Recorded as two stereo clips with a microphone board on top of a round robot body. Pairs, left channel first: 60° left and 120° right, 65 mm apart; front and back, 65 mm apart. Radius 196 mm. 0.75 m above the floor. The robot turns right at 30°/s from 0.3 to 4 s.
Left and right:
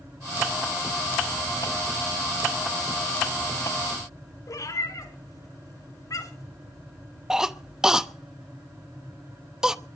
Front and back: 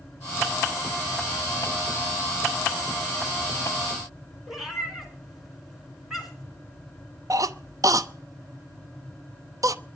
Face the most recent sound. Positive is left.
turn(degrees=160)